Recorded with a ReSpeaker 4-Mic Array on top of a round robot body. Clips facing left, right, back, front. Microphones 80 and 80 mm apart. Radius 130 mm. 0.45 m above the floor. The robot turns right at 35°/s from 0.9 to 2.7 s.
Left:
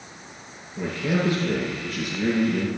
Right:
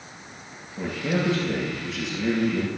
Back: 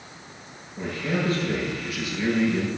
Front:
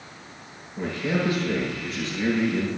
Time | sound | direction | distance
0.8 | a man speaking | 60° left | 8 m